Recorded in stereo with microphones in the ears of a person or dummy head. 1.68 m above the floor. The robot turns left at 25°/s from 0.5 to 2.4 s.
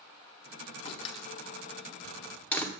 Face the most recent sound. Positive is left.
turn(degrees=5)  # may be behind; listen again after turning